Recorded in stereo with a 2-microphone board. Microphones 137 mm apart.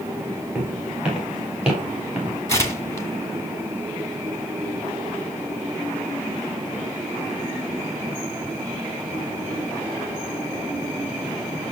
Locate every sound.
0.6 s footsteps: 10° right (ahead or behind), 8.5 m; by 2.4 s 5° right (ahead or behind), 6.5 m
2.5 s tearing paper: 20° left (ahead or behind), 1.9 m